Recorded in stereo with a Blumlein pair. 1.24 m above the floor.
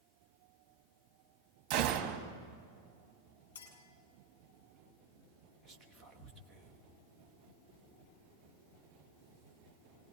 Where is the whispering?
5° right, 1.9 m.